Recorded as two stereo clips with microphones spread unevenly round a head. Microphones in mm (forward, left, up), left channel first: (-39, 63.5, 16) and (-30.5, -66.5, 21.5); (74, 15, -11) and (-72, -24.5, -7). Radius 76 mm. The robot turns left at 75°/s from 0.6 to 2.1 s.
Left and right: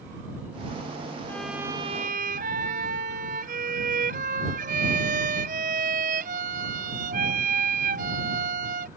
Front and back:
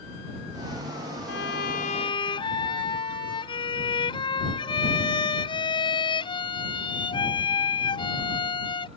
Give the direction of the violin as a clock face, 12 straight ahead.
11 o'clock.